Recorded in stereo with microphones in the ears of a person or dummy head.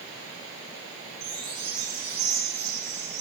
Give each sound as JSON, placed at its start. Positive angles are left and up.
{"t": 1.2, "sound": "a chime", "side_deg": 10, "distance_m": 3.5}